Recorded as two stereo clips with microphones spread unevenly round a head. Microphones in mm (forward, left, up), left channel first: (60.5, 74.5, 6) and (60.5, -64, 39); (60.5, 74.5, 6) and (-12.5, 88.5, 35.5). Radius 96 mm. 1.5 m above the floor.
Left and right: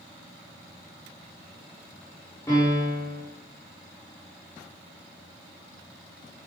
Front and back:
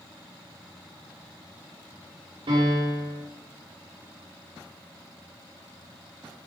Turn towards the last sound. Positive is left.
turn(degrees=165)